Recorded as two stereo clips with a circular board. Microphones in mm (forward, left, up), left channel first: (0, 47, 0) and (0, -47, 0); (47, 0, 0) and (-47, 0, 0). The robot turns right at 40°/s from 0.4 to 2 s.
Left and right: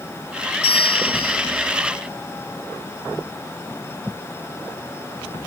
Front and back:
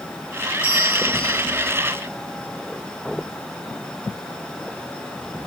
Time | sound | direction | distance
0.6 | a bell | 170° right | 2.5 m